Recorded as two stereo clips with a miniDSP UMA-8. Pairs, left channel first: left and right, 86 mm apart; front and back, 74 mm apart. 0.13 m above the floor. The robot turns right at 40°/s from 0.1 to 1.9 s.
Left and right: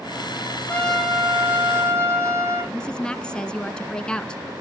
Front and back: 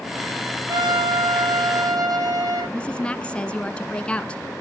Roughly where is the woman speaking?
Ahead left.